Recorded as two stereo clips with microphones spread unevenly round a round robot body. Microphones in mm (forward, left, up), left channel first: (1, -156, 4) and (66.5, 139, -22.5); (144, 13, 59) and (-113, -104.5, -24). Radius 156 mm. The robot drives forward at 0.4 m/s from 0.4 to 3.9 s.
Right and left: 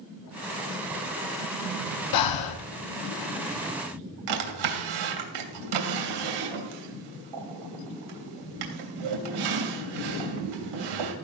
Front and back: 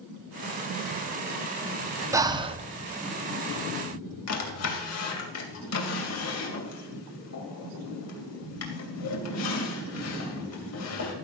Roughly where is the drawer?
Left.